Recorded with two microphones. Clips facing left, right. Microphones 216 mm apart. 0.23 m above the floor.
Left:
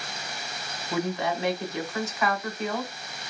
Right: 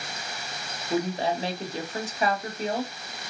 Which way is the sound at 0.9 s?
35° right (ahead or behind).